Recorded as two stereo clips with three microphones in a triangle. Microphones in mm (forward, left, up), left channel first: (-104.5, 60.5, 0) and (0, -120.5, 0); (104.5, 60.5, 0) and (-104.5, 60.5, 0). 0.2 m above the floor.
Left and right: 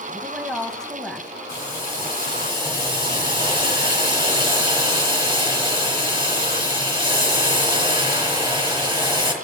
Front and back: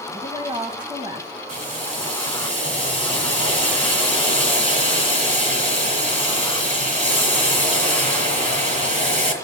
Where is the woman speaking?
150° right, 1.1 m.